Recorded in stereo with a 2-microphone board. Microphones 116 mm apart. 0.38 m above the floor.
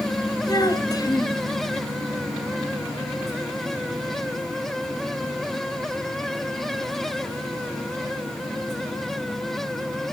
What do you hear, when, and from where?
0.5 s a child speaking: 30° left (ahead or behind), 3 m